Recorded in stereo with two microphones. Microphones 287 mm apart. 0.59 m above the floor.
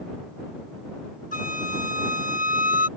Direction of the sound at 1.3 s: 30° left (ahead or behind).